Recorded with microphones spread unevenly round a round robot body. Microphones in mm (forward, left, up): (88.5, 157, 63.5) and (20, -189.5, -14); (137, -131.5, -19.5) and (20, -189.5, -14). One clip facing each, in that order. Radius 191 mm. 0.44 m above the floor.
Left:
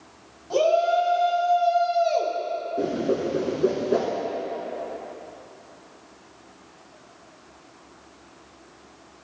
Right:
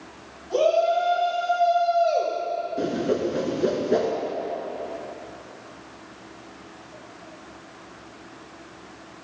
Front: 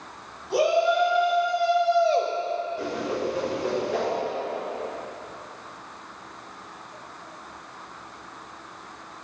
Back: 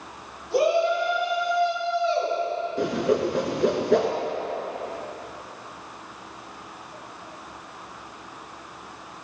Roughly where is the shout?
Ahead left.